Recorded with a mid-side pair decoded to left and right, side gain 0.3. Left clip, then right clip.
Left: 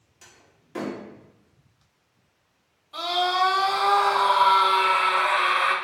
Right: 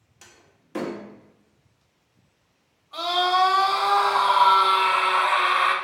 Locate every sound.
0.2 s a door slam: 55° right, 1.2 m
2.9 s a scream: 60° right, 2 m